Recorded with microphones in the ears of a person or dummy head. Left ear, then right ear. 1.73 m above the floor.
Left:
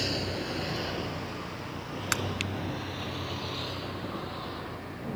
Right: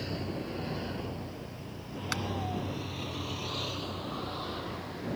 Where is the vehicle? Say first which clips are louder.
Left 6 dB; 40° left (ahead or behind); by 5.2 s 15° right (ahead or behind).